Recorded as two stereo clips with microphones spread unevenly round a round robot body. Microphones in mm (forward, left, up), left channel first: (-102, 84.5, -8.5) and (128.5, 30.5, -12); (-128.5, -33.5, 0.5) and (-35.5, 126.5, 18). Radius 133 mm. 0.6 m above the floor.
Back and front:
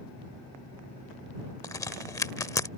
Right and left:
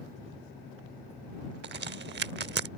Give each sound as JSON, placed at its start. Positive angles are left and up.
{"t": 1.6, "sound": "a crack", "azimuth_deg": 90}